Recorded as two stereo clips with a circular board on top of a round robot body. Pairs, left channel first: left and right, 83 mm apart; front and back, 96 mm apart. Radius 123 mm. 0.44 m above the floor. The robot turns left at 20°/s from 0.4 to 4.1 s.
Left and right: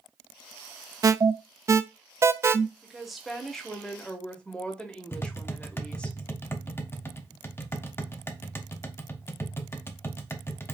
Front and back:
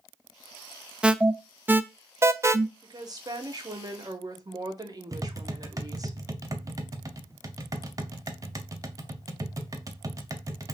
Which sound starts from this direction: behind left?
Tapping, at 5.1 s.